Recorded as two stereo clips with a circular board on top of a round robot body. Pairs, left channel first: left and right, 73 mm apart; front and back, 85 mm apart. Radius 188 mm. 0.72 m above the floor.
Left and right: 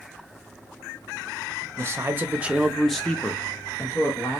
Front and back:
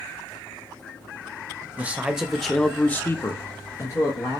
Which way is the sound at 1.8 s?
115° right.